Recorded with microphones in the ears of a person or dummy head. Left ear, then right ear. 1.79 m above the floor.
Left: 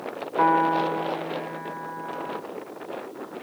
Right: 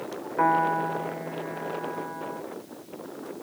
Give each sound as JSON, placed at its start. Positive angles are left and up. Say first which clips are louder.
{"t": 0.4, "sound": "a piano", "louder": "left 2 dB", "side_deg": 25, "distance_m": 0.6}